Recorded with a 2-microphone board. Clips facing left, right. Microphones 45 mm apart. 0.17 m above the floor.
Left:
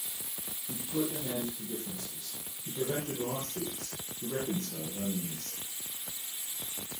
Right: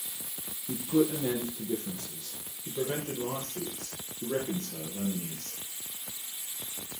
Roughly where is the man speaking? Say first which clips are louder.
Right 7 dB; right.